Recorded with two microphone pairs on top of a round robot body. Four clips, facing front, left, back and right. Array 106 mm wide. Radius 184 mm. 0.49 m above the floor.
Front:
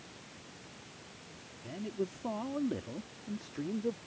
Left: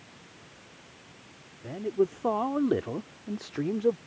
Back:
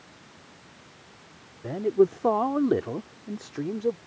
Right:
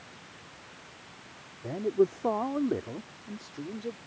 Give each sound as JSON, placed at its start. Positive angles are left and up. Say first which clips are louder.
{"t": 1.6, "sound": "a man speaking", "louder": "right 1 dB, back 16 dB", "azimuth_deg": -165}